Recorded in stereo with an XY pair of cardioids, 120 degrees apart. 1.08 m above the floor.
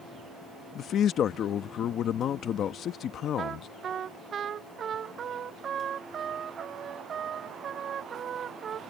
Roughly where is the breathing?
I don't hear breathing.